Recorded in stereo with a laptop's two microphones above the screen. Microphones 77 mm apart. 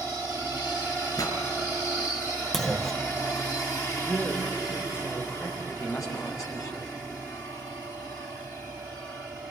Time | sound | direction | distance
1.2 | a pop | 50° left (ahead or behind) | 5 m
2.5 | a clunk | 5° left (ahead or behind) | 0.6 m
4.0 | a man speaking | 30° left (ahead or behind) | 4 m
5.6 | a man speaking | 45° left (ahead or behind) | 8.5 m